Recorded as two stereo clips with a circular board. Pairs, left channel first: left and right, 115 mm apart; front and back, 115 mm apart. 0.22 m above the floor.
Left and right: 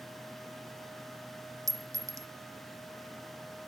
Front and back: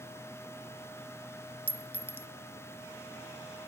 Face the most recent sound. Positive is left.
turn(degrees=-120)